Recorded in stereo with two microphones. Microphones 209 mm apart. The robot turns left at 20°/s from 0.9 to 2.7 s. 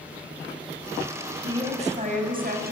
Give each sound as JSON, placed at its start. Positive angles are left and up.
{"t": 1.4, "sound": "a woman speaking", "side_deg": -25, "distance_m": 7.0}